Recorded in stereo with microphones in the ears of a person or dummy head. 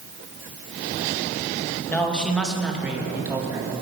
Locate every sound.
1.9 s a man speaking: 10° left (ahead or behind), 2.5 m; by 3.7 s 20° right (ahead or behind), 3 m